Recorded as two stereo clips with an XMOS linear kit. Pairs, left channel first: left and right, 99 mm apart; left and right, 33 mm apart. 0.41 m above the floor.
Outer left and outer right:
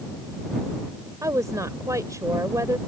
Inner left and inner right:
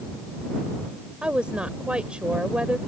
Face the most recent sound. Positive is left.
turn(degrees=-35)  # may be behind; listen again after turning